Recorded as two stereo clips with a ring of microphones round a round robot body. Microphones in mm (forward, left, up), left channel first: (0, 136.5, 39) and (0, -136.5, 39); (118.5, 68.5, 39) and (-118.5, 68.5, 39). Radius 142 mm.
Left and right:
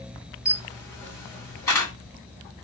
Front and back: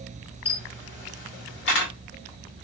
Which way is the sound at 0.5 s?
15° left.